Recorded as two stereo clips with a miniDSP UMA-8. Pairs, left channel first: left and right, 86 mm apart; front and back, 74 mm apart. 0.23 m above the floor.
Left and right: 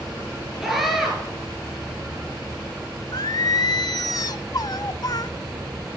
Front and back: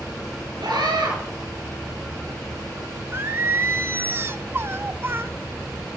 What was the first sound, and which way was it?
A scream, 175° right.